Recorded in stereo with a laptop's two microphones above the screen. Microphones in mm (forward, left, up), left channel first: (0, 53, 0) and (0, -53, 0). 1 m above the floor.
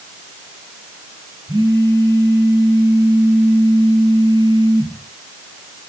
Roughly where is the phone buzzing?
Right.